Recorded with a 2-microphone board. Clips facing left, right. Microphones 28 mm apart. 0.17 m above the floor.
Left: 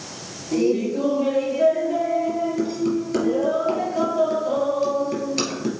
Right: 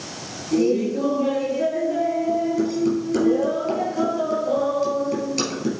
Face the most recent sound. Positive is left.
turn(degrees=15)  # may be behind; listen again after turning